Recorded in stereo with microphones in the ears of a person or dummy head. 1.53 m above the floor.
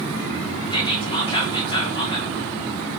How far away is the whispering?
About 2.5 m.